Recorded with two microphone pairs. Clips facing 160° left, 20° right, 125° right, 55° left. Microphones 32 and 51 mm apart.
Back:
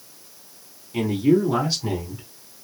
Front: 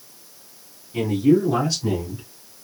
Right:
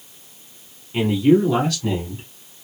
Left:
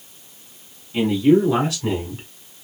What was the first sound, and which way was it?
A man speaking, straight behind.